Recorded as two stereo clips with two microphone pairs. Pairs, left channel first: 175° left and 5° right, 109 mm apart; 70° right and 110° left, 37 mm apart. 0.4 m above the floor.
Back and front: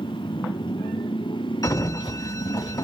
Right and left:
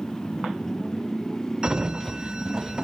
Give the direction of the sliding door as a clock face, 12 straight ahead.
7 o'clock.